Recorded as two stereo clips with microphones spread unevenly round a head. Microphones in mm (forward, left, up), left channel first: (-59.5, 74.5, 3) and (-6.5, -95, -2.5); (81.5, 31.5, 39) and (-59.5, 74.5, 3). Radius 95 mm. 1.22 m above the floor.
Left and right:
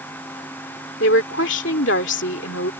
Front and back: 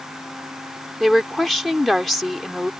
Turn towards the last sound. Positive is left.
turn(degrees=70)